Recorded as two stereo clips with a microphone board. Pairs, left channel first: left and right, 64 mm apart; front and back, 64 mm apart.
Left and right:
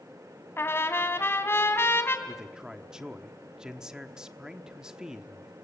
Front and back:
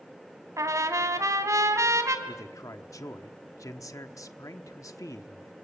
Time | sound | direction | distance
0.6 | a trumpet | 145° left | 2.5 m
2.3 | a man speaking | 10° right | 1.2 m